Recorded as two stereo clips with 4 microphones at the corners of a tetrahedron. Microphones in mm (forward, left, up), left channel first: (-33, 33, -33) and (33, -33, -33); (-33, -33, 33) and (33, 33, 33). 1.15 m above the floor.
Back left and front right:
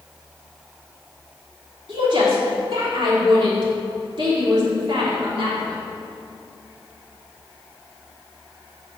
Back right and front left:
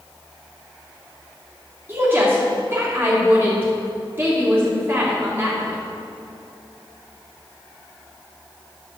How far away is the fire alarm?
I don't hear a fire alarm.